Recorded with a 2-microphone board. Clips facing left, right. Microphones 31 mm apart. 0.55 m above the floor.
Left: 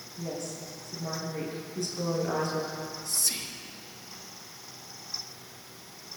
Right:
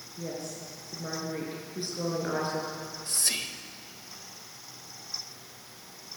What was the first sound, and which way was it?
A woman speaking, 25° right (ahead or behind).